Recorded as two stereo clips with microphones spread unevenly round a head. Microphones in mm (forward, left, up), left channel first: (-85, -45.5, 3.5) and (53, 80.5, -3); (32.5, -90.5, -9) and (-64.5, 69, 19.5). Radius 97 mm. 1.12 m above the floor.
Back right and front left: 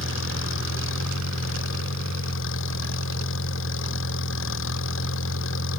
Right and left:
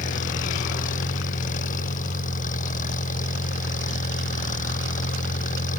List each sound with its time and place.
0.0 s an engine running: 110° right